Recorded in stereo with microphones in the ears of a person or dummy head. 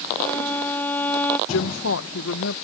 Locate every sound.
0.2 s a violin: 15° left (ahead or behind)
1.5 s a woman speaking: 80° left